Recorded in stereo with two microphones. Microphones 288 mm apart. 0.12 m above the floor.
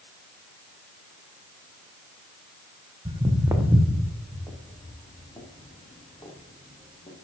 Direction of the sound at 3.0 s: 20° right (ahead or behind).